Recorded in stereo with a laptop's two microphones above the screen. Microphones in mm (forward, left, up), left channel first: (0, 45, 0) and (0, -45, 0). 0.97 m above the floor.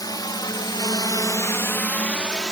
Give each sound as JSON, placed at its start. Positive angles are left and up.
{"t": 0.0, "sound": "a drone", "side_deg": 50}